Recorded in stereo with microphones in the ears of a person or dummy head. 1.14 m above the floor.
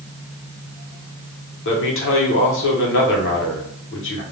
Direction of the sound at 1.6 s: 65° left (ahead or behind).